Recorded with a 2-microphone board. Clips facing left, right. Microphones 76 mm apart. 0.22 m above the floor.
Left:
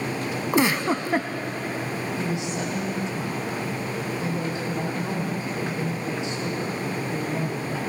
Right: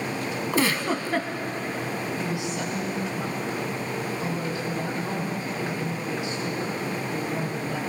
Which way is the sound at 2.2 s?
30° left (ahead or behind).